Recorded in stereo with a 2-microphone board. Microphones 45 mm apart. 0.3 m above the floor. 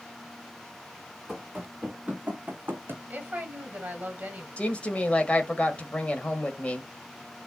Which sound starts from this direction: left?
A woman speaking, at 4.6 s.